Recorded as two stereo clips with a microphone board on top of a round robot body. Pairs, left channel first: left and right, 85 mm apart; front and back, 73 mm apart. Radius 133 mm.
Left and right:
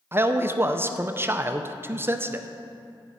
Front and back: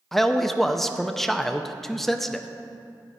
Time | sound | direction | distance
0.1 | a man speaking | 80° right | 0.6 m